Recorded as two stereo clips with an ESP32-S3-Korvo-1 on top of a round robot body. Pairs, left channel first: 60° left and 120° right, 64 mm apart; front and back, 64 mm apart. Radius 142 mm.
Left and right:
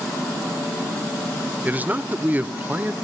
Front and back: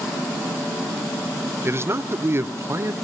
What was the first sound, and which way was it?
A man speaking, 165° right.